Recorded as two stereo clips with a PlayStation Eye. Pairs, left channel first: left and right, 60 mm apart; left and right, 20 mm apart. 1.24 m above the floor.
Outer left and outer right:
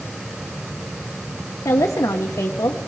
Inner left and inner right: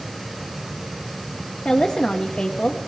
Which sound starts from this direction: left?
A woman speaking, at 1.6 s.